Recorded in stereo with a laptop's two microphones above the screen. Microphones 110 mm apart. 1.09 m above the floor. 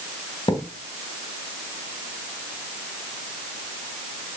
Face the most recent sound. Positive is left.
turn(degrees=50)  # may be behind; listen again after turning